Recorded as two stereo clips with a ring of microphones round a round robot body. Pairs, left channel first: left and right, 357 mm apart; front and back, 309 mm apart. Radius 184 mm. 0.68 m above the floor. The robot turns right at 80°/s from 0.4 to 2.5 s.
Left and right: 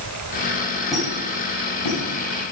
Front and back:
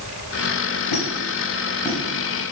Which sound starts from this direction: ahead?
A squeak, at 0.9 s.